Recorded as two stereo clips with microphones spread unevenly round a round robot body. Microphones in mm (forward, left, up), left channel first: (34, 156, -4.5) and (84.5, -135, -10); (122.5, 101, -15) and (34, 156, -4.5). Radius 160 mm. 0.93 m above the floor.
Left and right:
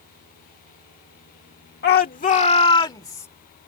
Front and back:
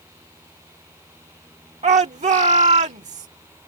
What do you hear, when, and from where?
1.8 s a shout: 160° left; by 3.3 s straight behind